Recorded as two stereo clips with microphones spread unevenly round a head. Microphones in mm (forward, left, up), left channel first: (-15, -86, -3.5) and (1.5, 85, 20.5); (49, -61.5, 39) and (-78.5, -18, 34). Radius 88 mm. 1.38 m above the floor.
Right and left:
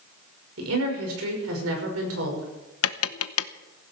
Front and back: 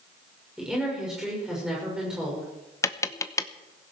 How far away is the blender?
I don't hear a blender.